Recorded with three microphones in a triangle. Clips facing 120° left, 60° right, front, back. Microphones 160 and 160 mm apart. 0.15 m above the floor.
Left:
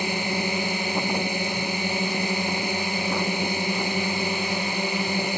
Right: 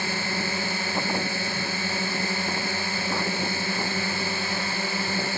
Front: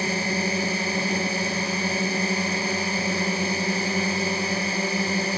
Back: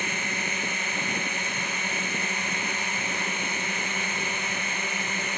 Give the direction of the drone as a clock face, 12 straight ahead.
10 o'clock.